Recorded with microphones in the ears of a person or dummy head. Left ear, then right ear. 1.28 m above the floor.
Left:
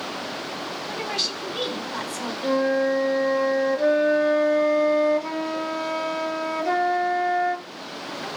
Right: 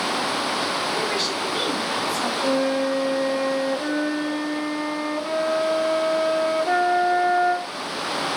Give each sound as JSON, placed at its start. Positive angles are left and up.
{"t": 0.9, "sound": "a woman speaking", "side_deg": 25, "distance_m": 9.5}
{"t": 2.4, "sound": "a flute", "side_deg": 20, "distance_m": 1.9}